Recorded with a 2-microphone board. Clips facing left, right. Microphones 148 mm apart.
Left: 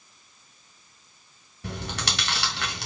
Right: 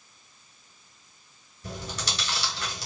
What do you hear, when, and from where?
1.6 s chewing: 65° left (ahead or behind), 2.5 m